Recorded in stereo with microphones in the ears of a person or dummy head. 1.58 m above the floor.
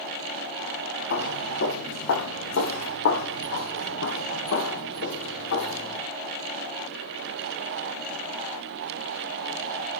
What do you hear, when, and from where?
1.1 s footsteps: 65° left (ahead or behind), 3.5 m; by 6.0 s 75° left (ahead or behind), 6 m